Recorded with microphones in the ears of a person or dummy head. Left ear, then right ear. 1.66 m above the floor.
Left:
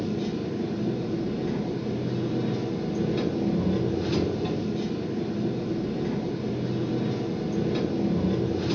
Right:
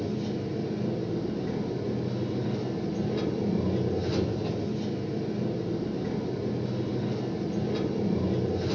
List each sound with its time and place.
0.0 s an engine running: 15° left (ahead or behind), 1.5 m